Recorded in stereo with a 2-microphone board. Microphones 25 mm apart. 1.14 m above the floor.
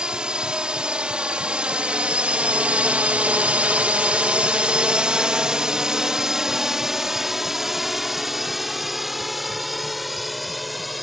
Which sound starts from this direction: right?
A drone, at 0.0 s.